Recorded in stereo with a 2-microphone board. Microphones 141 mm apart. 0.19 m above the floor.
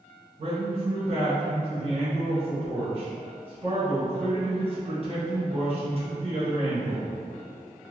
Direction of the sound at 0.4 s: 40° right (ahead or behind).